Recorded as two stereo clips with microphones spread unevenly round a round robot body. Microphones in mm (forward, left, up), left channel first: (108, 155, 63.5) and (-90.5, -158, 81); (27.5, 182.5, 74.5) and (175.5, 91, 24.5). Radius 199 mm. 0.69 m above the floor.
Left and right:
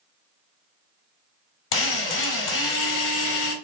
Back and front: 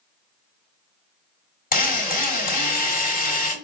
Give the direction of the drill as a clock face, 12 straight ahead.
8 o'clock.